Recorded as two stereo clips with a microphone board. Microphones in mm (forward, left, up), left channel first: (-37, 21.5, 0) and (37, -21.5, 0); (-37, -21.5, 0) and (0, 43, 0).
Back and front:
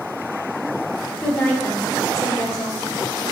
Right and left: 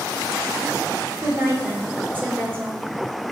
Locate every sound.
1.2 s a woman speaking: 80° left, 1.1 m; by 2.8 s 125° left, 1.8 m